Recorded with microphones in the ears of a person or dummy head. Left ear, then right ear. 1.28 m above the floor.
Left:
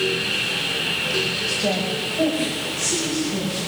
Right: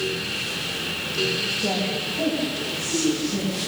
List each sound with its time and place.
1.5 s a woman speaking: 75° left (ahead or behind), 6 m; by 3.6 s 65° left (ahead or behind), 9 m